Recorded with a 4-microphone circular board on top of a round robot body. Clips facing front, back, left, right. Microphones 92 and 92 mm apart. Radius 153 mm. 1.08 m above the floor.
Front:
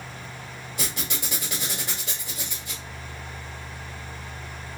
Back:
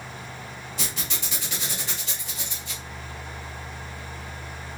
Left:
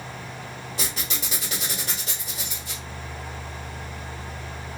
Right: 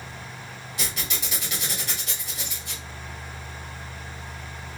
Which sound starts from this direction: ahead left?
A squeak, at 0.8 s.